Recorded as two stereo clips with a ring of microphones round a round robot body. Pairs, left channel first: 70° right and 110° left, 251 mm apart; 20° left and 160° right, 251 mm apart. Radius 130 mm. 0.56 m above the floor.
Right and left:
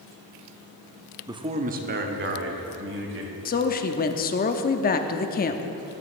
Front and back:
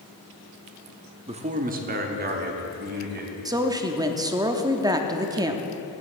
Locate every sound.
1.3 s a man speaking: 170° left, 0.7 m; by 3.4 s 150° left, 2.5 m
3.5 s a woman speaking: 90° right, 0.7 m